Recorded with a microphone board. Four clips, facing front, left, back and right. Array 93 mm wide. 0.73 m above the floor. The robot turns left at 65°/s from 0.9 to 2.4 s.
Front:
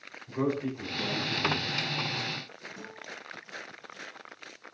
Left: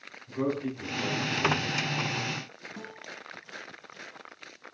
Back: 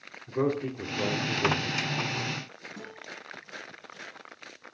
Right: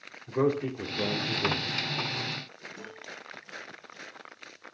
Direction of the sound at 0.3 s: 115° right.